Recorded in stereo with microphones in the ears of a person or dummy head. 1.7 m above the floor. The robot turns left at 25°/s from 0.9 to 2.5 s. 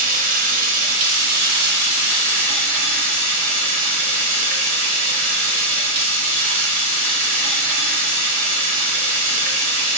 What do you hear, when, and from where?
0.0 s running water: 60° right, 0.9 m; by 10.0 s 100° right, 0.9 m